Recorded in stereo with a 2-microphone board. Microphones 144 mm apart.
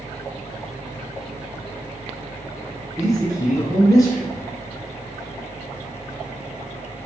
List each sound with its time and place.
3.0 s a man speaking: 25° left (ahead or behind), 1.2 m